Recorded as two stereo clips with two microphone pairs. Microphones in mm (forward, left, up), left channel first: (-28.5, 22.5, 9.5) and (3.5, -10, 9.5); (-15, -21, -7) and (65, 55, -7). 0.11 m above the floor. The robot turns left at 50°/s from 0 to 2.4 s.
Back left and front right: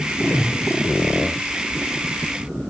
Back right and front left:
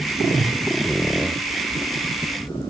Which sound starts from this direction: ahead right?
A whoosh, at 0.2 s.